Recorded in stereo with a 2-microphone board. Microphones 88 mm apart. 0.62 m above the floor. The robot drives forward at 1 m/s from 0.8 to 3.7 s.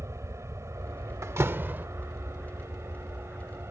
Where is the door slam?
35° right (ahead or behind); by 1.9 s 20° right (ahead or behind).